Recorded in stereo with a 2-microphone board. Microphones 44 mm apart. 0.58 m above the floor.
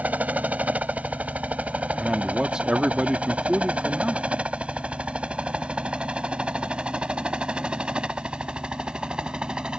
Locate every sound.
0.0 s a helicopter: 35° right (ahead or behind); by 9.8 s 15° right (ahead or behind)
2.0 s a man speaking: 20° right (ahead or behind)